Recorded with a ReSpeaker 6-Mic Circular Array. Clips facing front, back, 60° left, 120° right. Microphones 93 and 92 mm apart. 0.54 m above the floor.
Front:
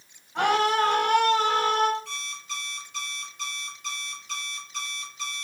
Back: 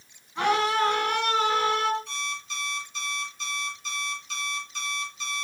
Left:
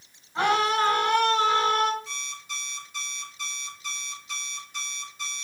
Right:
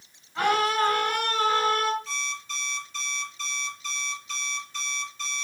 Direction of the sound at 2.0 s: 15° right.